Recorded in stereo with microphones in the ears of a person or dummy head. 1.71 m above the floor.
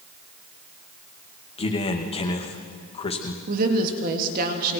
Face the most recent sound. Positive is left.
turn(degrees=-50)  # may be behind; listen again after turning